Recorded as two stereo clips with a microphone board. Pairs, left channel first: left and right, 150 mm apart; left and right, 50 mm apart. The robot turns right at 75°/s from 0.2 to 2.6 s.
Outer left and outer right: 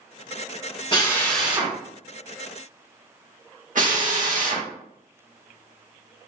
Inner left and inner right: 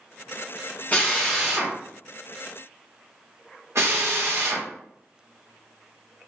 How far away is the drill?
About 1.1 m.